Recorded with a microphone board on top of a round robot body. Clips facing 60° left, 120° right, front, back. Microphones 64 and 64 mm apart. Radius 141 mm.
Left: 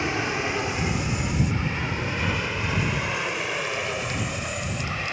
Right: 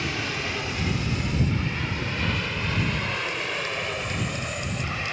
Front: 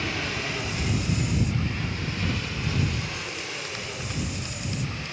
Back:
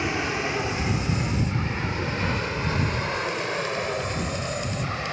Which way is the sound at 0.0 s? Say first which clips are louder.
Left 4 dB, back 4 dB; 120° left.